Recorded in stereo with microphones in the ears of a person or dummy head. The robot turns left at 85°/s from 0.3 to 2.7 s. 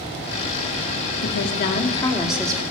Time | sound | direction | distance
1.2 | a woman speaking | 90° left | 2.5 m